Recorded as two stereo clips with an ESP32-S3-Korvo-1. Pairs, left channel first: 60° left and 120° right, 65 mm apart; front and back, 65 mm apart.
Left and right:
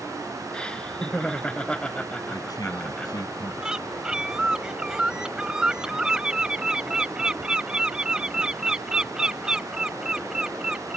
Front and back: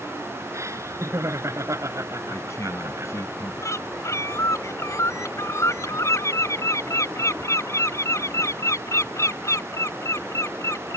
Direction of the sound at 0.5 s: 135° left.